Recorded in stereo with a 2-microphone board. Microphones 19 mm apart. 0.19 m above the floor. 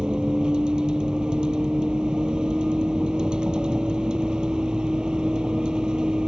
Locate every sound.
0.0 s a vehicle: 45° right (ahead or behind)